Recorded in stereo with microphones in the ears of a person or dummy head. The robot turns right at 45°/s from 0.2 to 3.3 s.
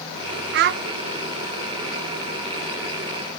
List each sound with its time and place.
0.5 s a child speaking: 65° right (ahead or behind), 0.6 m; by 0.8 s 50° right (ahead or behind), 0.6 m